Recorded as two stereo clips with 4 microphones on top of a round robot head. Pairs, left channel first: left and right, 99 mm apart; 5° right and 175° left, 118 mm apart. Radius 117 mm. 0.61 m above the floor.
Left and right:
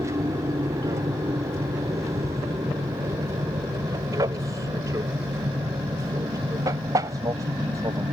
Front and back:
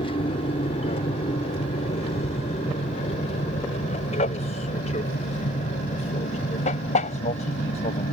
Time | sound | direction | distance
0.0 | an aircraft | 35° right | ?